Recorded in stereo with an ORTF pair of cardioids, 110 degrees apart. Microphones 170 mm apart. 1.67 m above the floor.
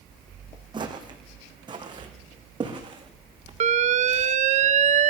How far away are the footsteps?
About 5.5 m.